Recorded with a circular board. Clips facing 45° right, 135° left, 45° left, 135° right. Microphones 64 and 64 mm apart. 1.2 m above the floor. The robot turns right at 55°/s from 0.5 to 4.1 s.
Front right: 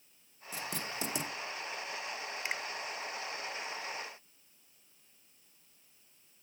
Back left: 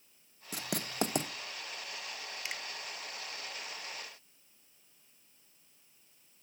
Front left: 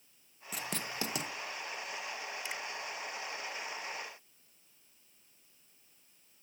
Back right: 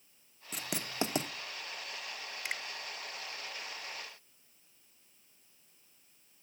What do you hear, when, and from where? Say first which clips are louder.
0.5 s writing: back left 3 dB, back right 2 dB; 135° left, 0.8 m; by 1.3 s 175° left, 0.8 m
2.5 s a finger snap: front right 4 dB, back right 5 dB; 105° right, 0.8 m; by 2.6 s 95° right, 0.8 m